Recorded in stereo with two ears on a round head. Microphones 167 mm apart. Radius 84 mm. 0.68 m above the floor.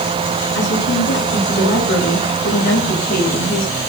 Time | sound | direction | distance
0.6 | a woman speaking | 70° left (ahead or behind) | 7.5 m